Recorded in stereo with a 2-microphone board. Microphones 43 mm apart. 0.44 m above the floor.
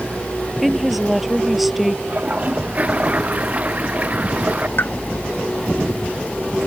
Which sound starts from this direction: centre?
A woman speaking, at 0.6 s.